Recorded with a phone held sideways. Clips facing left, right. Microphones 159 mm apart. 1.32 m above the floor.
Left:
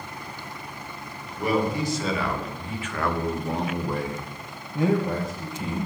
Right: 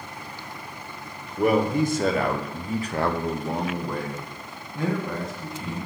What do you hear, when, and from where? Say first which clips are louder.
1.4 s a man speaking: right 4 dB; 50° right (ahead or behind), 1.2 m; by 5.9 s 30° left (ahead or behind), 1.7 m